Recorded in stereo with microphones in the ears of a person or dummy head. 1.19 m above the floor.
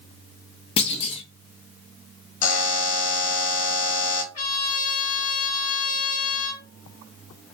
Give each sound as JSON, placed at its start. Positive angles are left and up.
{"t": 0.8, "sound": "a clunk", "side_deg": 30, "distance_m": 0.8}
{"t": 2.4, "sound": "a buzzer", "side_deg": 45, "distance_m": 1.0}
{"t": 4.3, "sound": "a trumpet", "side_deg": 50, "distance_m": 2.5}